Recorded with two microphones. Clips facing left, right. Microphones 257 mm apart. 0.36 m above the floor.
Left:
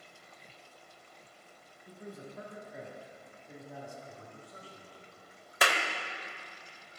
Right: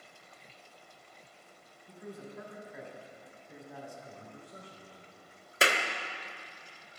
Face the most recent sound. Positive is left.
turn(degrees=-30)  # may be behind; listen again after turning